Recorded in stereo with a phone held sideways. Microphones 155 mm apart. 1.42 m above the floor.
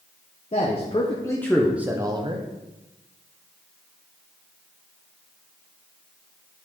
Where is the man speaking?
45° left (ahead or behind), 1.3 m; by 2.5 s 40° right (ahead or behind), 1.0 m.